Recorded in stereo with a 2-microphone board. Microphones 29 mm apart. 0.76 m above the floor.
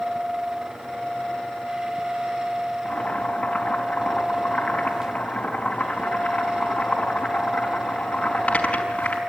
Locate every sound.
2.9 s boiling: 40° left (ahead or behind), 5 m